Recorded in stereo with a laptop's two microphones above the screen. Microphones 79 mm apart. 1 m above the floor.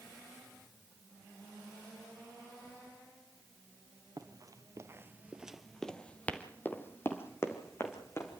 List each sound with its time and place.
4.2 s running footsteps: 55° right (ahead or behind), 1.6 m; by 8.4 s 35° left (ahead or behind), 4 m